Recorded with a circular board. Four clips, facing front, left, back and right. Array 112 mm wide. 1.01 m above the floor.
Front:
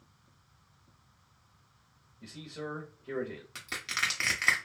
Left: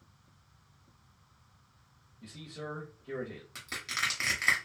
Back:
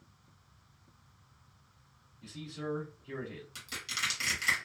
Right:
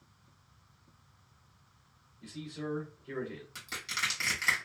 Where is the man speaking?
15° left, 1.2 m.